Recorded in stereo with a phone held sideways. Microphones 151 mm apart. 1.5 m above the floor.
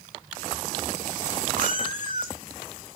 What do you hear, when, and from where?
1.6 s a cat meowing: 60° right (ahead or behind), 1.9 m